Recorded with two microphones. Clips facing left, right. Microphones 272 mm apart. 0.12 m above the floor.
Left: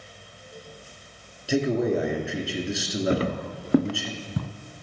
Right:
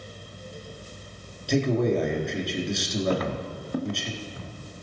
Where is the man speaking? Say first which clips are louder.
Even; 5° left (ahead or behind), 1.6 m.